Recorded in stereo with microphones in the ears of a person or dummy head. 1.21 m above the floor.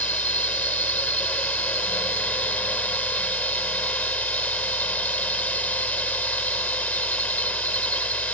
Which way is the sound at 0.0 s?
10° left (ahead or behind).